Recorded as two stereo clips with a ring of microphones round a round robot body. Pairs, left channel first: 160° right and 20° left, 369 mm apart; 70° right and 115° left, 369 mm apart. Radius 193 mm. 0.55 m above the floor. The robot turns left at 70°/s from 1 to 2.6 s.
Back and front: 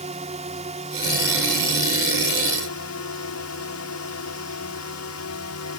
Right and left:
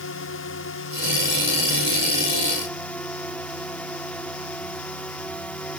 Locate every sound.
0.0 s a drone: 40° right; by 5.8 s 150° right